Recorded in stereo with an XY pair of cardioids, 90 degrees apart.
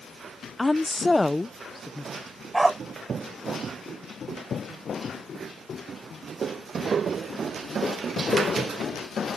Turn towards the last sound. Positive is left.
turn(degrees=-15)